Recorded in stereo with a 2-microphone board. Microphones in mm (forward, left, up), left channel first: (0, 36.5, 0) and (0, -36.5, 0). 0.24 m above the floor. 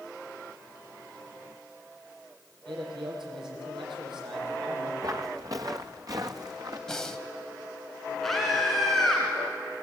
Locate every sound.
2.7 s a man speaking: 80° right, 9.5 m
5.0 s footsteps: 45° right (ahead or behind), 1.8 m; by 6.8 s 55° right (ahead or behind), 3 m
6.9 s breathing: 10° left (ahead or behind), 1.4 m
8.2 s a scream: 5° left (ahead or behind), 3 m